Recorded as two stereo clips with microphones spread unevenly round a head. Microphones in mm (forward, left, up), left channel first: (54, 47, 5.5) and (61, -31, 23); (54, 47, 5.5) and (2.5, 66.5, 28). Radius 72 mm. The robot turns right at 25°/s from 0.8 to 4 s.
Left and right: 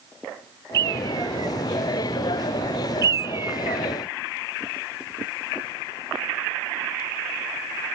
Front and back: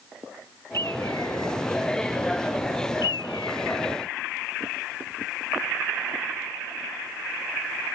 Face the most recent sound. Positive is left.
turn(degrees=-30)